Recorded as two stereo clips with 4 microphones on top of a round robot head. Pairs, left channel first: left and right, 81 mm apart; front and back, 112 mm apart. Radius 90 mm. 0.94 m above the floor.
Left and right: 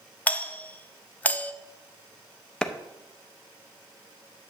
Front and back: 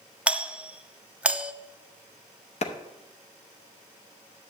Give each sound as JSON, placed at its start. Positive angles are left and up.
{"t": 0.3, "sound": "a doorbell", "azimuth_deg": 115, "distance_m": 0.7}
{"t": 2.6, "sound": "a clap", "azimuth_deg": 10, "distance_m": 0.8}